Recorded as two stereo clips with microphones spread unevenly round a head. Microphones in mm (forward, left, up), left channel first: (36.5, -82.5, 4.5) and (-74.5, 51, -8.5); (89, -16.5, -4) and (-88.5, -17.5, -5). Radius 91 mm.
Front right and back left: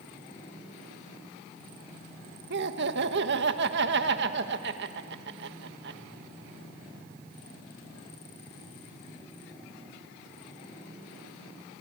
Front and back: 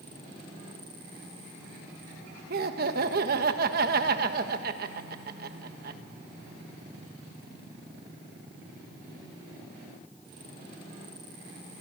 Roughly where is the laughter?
Behind left.